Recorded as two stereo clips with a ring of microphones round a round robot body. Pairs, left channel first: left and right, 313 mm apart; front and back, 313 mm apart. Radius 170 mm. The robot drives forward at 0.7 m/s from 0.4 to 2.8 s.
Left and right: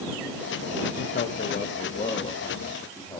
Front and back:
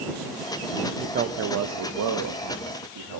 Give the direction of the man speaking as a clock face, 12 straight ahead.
8 o'clock.